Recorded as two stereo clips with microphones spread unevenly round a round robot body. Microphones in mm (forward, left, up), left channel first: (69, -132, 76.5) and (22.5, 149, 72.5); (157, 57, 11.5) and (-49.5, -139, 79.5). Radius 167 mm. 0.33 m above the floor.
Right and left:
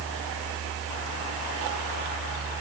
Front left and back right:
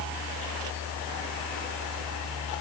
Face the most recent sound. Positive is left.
No sound to turn to.